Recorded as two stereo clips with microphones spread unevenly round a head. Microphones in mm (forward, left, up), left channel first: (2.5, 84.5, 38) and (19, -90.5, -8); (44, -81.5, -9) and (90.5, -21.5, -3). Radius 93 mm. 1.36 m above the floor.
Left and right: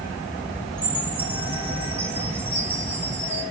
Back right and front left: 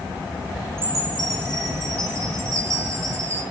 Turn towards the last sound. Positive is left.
turn(degrees=0)